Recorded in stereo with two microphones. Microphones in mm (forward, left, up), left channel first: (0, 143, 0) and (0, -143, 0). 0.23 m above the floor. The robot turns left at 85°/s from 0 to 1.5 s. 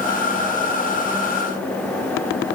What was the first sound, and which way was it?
Only background noise.